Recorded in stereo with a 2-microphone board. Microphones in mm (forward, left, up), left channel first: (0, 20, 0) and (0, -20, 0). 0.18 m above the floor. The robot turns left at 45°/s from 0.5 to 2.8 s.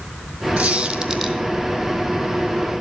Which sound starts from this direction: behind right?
A squeak, at 0.6 s.